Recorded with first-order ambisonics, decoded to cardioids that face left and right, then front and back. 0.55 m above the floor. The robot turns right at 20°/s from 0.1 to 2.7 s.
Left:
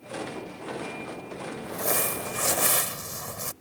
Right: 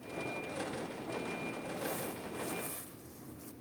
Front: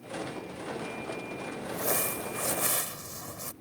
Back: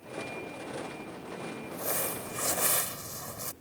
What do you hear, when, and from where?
1.6 s crumpling: 75° left; by 3.5 s 95° left